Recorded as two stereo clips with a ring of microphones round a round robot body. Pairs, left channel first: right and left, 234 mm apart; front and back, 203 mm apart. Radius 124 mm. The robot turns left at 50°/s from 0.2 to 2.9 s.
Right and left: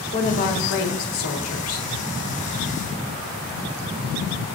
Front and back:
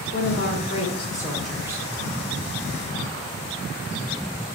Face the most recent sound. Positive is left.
turn(degrees=-160)